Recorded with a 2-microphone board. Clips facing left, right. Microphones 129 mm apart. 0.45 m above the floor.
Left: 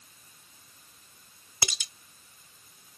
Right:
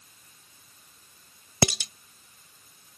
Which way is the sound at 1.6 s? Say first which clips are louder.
Right 13 dB; 65° right (ahead or behind).